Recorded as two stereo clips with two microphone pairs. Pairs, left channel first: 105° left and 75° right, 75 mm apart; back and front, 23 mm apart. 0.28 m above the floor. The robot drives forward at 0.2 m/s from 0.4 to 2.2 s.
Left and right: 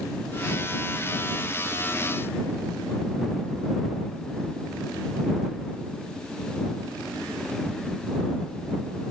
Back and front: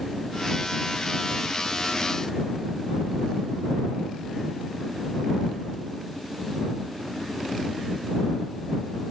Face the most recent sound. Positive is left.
No sound to turn to.